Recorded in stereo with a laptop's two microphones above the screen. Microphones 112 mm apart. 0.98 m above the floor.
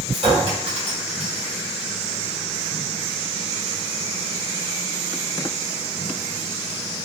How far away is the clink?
About 2.5 m.